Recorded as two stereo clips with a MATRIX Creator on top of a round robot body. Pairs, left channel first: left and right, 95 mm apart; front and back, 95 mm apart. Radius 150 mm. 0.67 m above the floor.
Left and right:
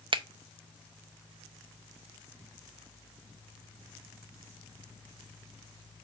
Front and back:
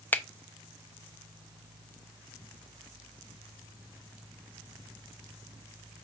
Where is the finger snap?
70° right, 0.7 m.